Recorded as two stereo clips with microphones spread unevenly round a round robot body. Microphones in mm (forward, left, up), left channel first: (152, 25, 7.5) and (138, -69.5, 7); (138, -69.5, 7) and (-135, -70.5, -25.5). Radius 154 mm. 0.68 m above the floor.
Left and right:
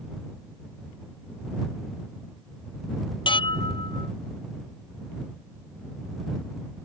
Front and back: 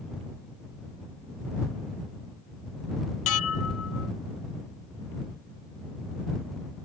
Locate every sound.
3.3 s dishes clattering: 50° left